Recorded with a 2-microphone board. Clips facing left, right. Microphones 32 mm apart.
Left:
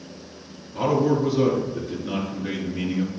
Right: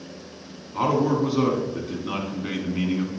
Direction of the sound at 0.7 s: 45° right (ahead or behind).